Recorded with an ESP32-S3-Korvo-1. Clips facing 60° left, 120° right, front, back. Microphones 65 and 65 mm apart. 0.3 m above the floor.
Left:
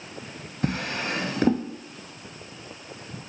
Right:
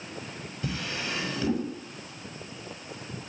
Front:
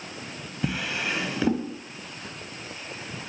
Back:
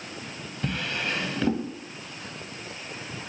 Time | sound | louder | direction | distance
0.6 | a drawer | left 6 dB, front 1 dB | 80° left | 0.7 m